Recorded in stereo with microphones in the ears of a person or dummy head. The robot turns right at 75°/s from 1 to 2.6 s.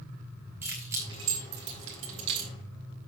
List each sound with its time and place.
0.6 s keys jangling: 10° right (ahead or behind), 4.5 m; by 2.5 s 55° right (ahead or behind), 4.5 m